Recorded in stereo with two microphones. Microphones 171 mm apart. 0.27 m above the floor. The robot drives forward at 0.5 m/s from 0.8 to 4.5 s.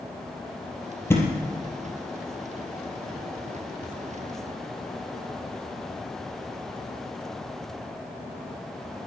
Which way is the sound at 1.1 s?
15° left (ahead or behind).